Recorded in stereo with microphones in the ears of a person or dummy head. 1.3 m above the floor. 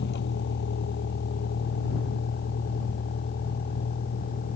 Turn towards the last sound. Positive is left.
turn(degrees=45)  # may be behind; listen again after turning